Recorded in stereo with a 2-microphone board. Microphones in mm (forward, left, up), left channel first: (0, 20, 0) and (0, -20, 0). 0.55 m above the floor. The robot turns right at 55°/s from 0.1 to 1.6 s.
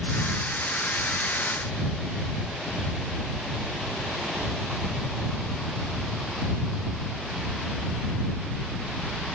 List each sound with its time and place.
Only background noise.